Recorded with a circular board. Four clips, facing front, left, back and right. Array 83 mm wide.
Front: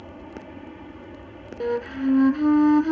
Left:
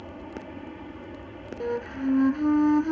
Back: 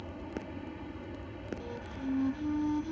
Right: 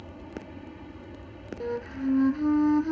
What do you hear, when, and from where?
0.0 s an aircraft: 55° left
1.6 s a flute: 15° left